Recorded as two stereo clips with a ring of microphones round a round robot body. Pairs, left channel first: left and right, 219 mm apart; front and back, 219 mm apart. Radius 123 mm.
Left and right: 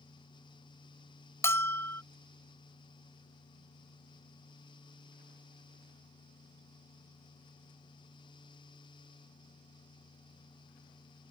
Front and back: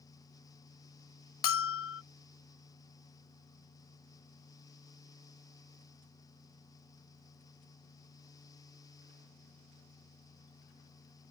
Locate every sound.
1.4 s a bell: 10° left